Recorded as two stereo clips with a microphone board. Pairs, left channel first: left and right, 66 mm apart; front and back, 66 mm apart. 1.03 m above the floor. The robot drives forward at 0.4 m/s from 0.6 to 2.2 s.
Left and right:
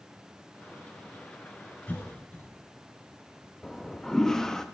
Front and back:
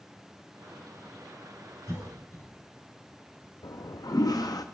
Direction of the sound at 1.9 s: 30° left.